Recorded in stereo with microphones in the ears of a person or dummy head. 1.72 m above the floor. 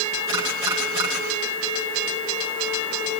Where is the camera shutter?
15° right (ahead or behind), 10 m.